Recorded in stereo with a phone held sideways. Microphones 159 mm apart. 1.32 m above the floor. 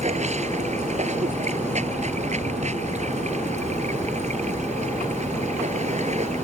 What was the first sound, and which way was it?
Running water, 45° right (ahead or behind).